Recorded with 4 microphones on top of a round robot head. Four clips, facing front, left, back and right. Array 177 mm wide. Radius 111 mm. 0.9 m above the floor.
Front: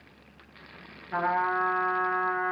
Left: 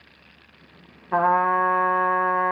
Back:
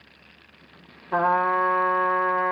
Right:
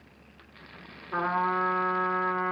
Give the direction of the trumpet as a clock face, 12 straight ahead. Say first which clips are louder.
Left 8 dB, back 6 dB; 8 o'clock.